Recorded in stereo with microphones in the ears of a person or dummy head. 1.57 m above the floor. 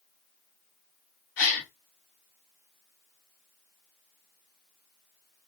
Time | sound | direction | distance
1.4 | a gasp | 40° left (ahead or behind) | 1.7 m